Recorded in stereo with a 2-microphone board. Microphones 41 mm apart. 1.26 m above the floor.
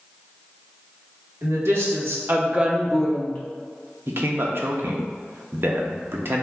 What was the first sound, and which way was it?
A woman speaking, 80° right.